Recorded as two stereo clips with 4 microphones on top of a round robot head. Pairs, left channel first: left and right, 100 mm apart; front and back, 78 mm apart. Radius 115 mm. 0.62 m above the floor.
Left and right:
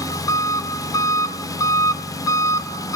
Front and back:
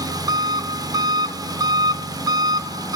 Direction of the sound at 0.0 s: 145° left.